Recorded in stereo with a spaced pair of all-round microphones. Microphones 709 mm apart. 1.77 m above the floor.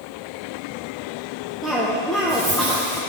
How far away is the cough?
About 1.2 m.